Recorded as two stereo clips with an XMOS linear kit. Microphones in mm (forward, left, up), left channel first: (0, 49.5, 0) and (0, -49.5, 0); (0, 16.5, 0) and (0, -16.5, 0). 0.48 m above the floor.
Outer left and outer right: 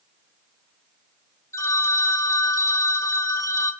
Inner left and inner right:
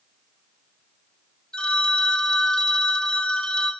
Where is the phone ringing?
30° left (ahead or behind), 0.8 m.